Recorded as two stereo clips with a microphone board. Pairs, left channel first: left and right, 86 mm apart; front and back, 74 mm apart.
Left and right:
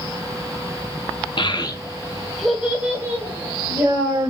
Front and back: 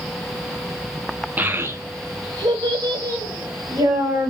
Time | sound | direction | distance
1.4 | a child speaking | 115° left | 0.6 m